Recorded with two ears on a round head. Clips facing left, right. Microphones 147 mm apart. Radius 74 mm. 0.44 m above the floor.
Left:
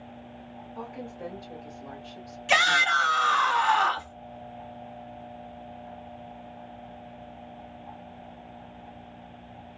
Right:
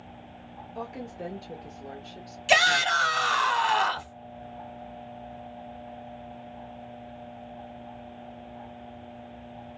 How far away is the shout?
About 1.2 m.